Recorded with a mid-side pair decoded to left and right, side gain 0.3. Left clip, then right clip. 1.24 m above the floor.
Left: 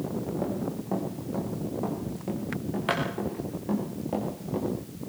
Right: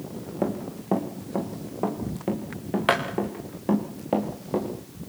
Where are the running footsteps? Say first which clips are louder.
Right 2 dB; 65° right, 5 m; by 4.7 s 70° right, 7.5 m.